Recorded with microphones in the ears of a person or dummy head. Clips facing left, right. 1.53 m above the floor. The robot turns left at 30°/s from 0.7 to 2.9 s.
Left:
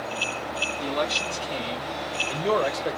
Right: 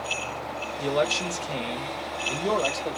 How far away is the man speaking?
About 1.4 m.